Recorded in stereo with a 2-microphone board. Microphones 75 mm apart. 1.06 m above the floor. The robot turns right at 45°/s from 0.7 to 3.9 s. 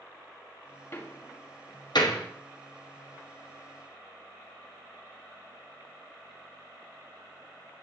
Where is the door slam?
30° left (ahead or behind), 1.2 m; by 2.2 s 80° left, 1.2 m.